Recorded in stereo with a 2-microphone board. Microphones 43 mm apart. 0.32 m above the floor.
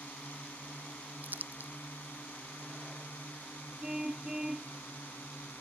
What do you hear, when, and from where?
0.0 s a drone: 45° left (ahead or behind); by 5.6 s 50° left (ahead or behind)
1.2 s crumpling: 50° right (ahead or behind)
3.8 s a car horn: 15° right (ahead or behind)